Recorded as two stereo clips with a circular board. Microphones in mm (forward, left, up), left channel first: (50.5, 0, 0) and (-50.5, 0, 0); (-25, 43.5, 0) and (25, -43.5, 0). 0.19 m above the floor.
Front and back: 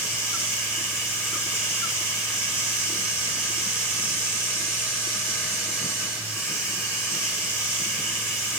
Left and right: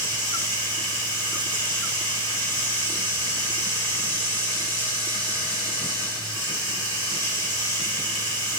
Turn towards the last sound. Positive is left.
turn(degrees=-110)